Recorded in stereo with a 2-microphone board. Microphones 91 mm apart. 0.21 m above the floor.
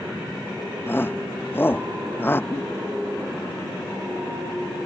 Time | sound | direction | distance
0.9 | a shout | 25° left (ahead or behind) | ?
2.5 | a giggle | 35° left (ahead or behind) | ?